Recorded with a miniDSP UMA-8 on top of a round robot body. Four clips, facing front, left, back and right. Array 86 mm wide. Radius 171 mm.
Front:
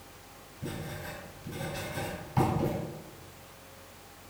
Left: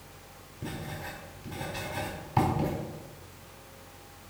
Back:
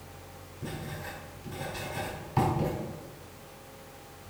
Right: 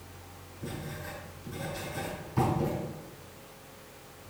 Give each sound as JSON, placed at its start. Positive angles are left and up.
{"t": 0.6, "sound": "writing", "azimuth_deg": 100, "distance_m": 4.5}